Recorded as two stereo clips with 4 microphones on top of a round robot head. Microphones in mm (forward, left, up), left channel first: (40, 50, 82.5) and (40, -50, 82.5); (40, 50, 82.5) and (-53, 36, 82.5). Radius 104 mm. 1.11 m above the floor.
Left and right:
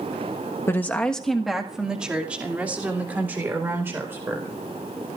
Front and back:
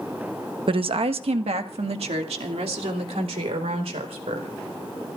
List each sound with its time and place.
0.7 s a woman speaking: 160° left, 1.1 m; by 4.5 s 160° right, 4.5 m